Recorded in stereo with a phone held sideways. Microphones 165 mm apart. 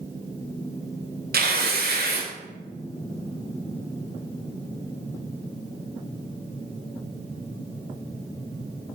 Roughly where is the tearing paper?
Right.